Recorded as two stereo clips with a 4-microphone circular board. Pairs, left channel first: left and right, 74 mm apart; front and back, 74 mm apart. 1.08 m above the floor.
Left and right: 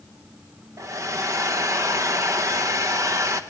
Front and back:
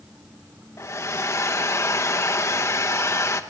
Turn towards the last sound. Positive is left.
turn(degrees=-45)